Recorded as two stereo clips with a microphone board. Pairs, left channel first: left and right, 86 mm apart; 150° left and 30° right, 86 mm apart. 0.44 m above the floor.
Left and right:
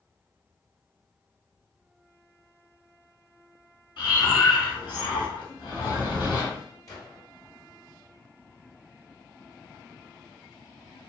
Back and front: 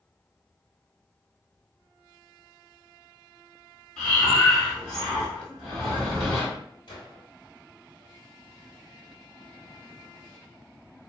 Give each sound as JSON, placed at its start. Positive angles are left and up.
{"t": 4.0, "sound": "breathing", "azimuth_deg": 65, "distance_m": 1.9}
{"t": 6.9, "sound": "a gunshot", "azimuth_deg": 135, "distance_m": 1.3}